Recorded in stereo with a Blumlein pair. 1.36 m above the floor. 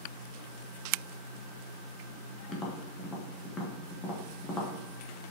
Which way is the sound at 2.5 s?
15° left.